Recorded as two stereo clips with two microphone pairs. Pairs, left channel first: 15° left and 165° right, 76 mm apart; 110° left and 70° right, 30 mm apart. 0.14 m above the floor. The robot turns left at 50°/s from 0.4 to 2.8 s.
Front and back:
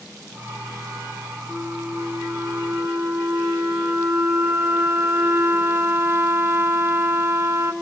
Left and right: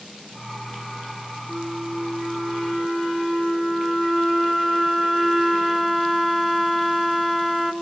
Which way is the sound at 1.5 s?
95° right.